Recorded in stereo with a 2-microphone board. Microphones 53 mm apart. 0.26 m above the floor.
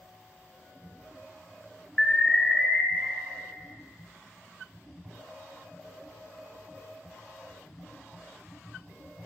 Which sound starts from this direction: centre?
An alarm, at 2.0 s.